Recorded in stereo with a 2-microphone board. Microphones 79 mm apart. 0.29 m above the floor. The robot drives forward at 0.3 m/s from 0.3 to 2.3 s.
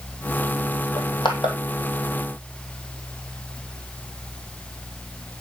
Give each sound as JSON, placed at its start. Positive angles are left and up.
{"t": 1.0, "sound": "crushing", "side_deg": 75, "distance_m": 1.8}